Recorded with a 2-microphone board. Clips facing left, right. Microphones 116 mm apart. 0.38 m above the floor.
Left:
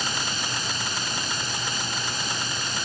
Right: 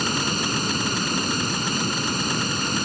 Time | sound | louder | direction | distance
0.0 | running water | right 6 dB | 50° right (ahead or behind) | ?